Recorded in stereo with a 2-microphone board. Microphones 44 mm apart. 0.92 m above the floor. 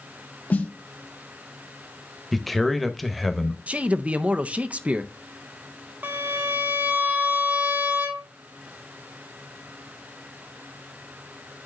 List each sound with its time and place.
0.5 s a snare drum: 40° left (ahead or behind), 0.7 m
2.3 s a man speaking: centre (ahead or behind), 0.8 m
3.7 s a man speaking: 35° right (ahead or behind), 0.5 m
6.0 s a violin: 50° right (ahead or behind), 1.0 m